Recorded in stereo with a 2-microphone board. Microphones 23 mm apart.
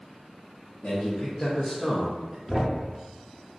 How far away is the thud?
About 0.6 m.